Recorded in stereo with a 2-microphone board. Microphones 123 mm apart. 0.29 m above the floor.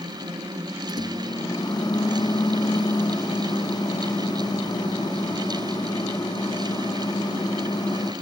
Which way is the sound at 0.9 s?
35° left (ahead or behind).